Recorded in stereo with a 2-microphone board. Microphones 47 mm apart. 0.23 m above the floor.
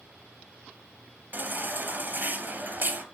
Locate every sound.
1.3 s a baby crying: 40° right (ahead or behind), 2 m